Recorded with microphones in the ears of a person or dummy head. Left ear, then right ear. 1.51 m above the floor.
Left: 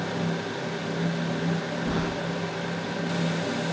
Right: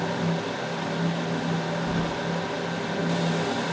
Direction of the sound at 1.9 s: 40° left (ahead or behind).